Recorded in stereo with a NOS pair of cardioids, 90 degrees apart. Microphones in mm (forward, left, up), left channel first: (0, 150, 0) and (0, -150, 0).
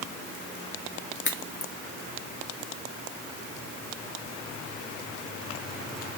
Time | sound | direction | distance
1.2 | a crack | 40° left | 2.5 m